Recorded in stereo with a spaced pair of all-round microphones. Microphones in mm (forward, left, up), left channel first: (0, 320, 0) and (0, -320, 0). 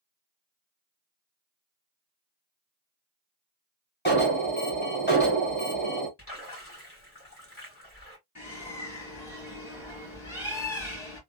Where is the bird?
5° right (ahead or behind), 2.0 m.